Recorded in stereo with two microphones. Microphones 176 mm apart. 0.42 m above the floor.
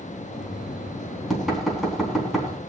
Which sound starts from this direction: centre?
Knocking, at 0.3 s.